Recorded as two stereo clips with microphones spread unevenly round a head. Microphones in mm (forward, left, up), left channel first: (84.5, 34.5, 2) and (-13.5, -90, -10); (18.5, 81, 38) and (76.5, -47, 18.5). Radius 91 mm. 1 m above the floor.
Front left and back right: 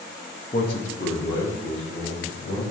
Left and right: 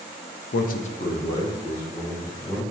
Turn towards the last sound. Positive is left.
turn(degrees=35)